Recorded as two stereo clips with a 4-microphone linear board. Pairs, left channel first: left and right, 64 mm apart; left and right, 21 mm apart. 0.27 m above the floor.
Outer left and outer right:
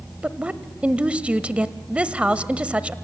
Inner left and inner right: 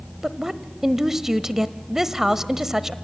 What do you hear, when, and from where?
0.2 s a woman speaking: 20° right (ahead or behind), 0.9 m